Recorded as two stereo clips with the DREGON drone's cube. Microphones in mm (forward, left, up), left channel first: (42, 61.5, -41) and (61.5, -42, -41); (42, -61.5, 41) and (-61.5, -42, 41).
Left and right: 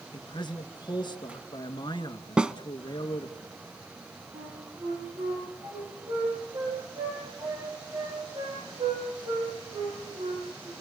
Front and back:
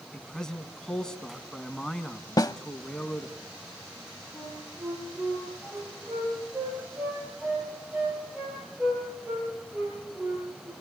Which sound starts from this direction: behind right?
A flute, at 4.3 s.